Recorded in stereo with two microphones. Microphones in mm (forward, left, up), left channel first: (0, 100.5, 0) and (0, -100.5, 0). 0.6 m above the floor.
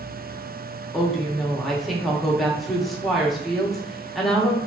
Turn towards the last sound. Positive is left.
turn(degrees=0)  # may be behind; listen again after turning